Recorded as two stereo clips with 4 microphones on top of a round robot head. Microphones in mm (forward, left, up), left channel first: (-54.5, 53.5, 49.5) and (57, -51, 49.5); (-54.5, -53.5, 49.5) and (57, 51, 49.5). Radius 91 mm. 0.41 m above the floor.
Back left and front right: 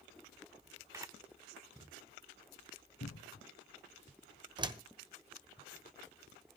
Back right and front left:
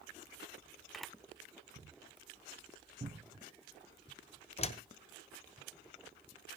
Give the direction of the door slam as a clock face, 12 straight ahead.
3 o'clock.